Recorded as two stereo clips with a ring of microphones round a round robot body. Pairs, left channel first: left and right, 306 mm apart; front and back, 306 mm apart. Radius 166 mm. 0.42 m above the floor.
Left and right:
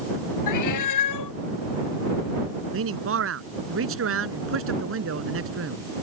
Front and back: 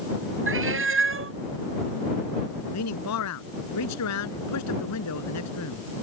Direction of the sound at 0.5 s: 130° left.